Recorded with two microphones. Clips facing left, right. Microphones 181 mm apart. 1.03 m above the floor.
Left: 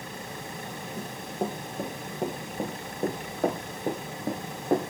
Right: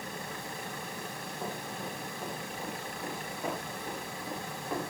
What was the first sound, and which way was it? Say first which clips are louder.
Running footsteps: left 12 dB; 50° left (ahead or behind).